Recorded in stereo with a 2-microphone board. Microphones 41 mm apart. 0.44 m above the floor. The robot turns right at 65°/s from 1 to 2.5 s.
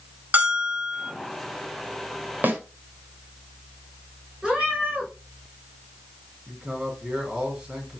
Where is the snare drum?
50° right (ahead or behind), 2 m; by 2.6 s 45° right (ahead or behind), 2 m.